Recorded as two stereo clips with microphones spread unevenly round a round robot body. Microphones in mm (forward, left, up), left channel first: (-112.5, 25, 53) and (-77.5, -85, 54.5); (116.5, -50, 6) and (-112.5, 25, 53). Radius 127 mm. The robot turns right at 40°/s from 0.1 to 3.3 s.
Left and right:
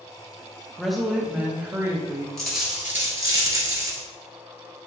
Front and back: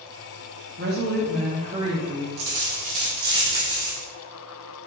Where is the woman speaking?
170° right, 0.8 m; by 2.3 s 110° right, 0.8 m.